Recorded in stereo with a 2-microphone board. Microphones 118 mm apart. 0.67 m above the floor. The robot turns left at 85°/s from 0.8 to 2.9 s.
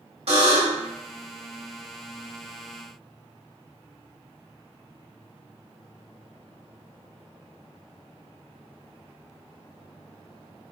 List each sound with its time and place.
0.3 s a buzzer: 80° right, 1.9 m; by 0.9 s 85° right, 1.9 m